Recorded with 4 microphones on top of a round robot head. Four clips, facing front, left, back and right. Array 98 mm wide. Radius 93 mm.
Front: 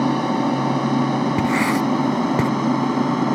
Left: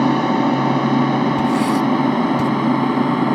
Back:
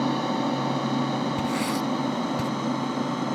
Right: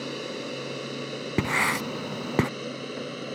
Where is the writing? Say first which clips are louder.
Left 10 dB, front 7 dB; 45° right.